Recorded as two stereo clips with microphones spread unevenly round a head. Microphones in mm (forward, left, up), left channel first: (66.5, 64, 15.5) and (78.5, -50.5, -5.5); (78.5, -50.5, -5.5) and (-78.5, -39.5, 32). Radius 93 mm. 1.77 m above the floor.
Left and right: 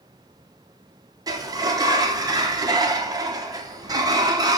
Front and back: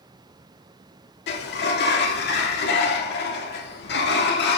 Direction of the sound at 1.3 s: 20° right.